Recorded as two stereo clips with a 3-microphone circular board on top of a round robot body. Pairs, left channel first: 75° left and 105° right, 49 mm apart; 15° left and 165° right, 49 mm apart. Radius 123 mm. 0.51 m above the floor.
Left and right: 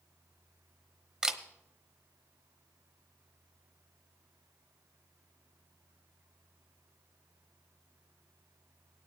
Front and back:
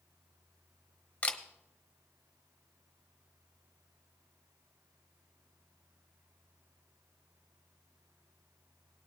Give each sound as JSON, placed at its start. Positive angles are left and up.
{"t": 1.2, "sound": "a camera shutter", "azimuth_deg": -35, "distance_m": 1.1}